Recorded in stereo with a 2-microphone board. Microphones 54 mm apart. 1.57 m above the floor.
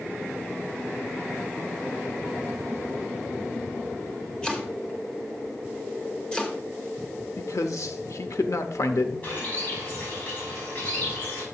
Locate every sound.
4.4 s chopping: 15° left (ahead or behind), 1.1 m
7.4 s a man speaking: 75° left (ahead or behind), 0.7 m
9.2 s a bird: 30° left (ahead or behind), 5 m